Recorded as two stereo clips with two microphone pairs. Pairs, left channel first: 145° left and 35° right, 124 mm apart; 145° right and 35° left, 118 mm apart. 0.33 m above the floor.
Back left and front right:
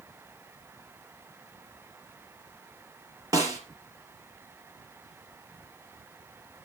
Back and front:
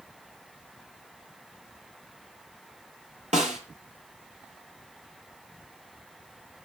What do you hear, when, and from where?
3.3 s a snare drum: 25° left, 5 m